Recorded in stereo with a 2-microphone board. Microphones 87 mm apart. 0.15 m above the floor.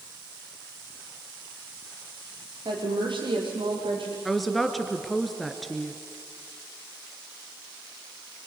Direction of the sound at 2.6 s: 60° right (ahead or behind).